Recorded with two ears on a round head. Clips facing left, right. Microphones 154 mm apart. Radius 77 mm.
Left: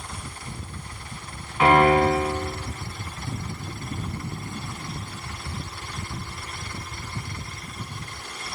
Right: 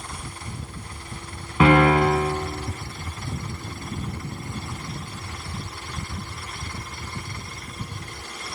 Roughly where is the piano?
Right.